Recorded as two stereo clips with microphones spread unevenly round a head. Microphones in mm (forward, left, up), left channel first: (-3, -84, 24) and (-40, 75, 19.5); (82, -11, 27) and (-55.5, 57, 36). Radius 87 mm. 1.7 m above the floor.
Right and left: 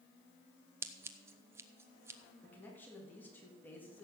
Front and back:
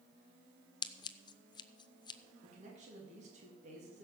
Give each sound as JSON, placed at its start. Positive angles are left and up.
{"t": 0.8, "sound": "scissors", "azimuth_deg": 30, "distance_m": 0.5}
{"t": 2.4, "sound": "a man speaking", "azimuth_deg": -155, "distance_m": 3.5}